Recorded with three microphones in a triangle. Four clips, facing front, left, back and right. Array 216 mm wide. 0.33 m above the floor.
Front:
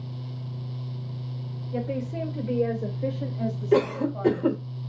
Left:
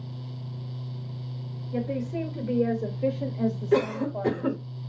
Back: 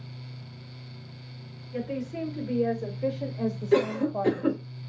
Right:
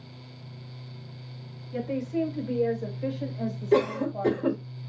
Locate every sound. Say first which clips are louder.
1.7 s a woman speaking: right 1 dB, front 2 dB; 25° left, 1.4 m; by 4.6 s 170° left, 1.5 m
3.7 s a cough: right 2 dB, front 1 dB; 45° right, 1.2 m